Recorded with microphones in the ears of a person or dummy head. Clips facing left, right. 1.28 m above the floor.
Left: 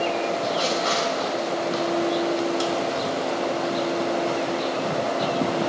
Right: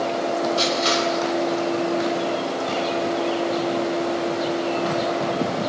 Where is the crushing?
40° right (ahead or behind), 6 m.